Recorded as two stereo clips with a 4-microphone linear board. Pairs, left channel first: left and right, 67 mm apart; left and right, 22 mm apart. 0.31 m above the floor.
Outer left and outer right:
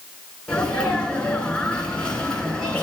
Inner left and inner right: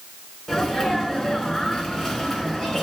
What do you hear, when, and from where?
0.5 s a sneeze: 15° left (ahead or behind), 3 m